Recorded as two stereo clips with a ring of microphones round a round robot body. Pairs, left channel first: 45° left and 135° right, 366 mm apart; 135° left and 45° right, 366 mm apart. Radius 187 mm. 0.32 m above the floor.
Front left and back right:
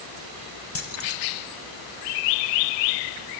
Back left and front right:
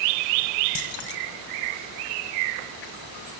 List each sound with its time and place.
0.8 s keys jangling: 95° left, 1.9 m